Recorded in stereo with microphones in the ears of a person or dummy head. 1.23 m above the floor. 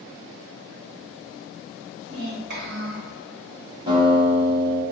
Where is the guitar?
30° right (ahead or behind), 1.5 m.